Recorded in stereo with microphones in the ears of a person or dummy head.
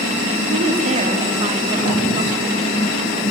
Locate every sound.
0.5 s a woman speaking: 40° right (ahead or behind), 3 m; by 2.6 s 25° right (ahead or behind), 3.5 m